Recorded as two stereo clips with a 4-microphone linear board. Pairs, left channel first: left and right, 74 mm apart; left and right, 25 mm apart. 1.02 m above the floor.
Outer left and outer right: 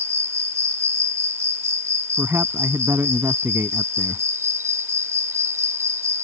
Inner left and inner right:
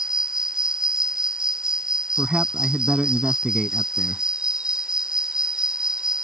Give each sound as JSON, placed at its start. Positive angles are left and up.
{"t": 0.0, "sound": "an insect", "side_deg": -40}
{"t": 2.2, "sound": "a man speaking", "side_deg": -30}